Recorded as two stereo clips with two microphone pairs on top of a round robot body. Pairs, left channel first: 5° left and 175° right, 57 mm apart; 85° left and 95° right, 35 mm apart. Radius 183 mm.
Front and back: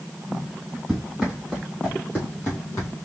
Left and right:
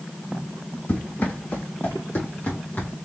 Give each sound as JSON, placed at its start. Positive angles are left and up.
{"t": 0.9, "sound": "running footsteps", "azimuth_deg": 100, "distance_m": 2.0}